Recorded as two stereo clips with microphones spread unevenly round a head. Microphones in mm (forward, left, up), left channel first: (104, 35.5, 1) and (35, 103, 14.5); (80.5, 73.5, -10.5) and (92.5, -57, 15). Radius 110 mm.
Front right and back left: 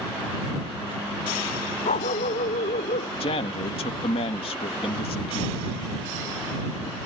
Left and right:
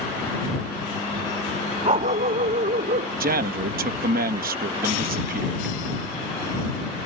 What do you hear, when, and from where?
1.9 s a dog barking: 55° right; by 3.1 s 70° right
3.2 s a man speaking: 85° right